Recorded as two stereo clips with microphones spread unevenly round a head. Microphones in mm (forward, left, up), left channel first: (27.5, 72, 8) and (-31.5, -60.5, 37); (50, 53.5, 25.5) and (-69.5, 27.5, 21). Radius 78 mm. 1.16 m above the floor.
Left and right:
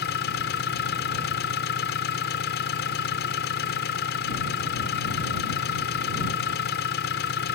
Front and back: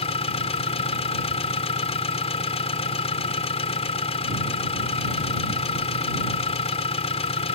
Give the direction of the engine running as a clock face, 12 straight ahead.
10 o'clock.